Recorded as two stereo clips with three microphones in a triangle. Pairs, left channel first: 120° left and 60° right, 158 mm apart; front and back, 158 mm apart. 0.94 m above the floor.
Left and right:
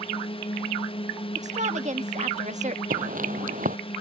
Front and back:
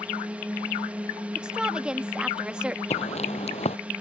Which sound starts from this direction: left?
A drone, at 0.0 s.